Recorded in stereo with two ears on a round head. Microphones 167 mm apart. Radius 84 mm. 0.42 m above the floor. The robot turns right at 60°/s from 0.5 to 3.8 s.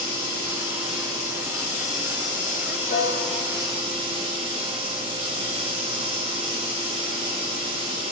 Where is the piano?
50° left, 1.3 m; by 3.5 s 85° left, 1.3 m.